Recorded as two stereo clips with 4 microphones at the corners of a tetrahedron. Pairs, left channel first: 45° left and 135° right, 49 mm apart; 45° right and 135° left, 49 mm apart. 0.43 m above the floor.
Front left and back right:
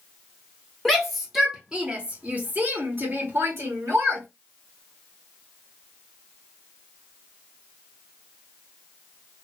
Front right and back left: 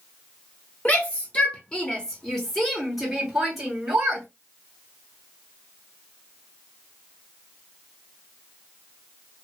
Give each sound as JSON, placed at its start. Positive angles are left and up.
{"t": 0.8, "sound": "a shout", "azimuth_deg": -40, "distance_m": 1.3}